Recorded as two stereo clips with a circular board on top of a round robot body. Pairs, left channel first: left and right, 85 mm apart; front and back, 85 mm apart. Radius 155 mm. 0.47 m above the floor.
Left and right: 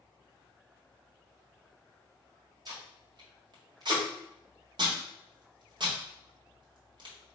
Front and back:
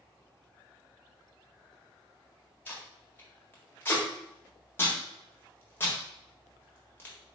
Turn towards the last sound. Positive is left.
turn(degrees=-65)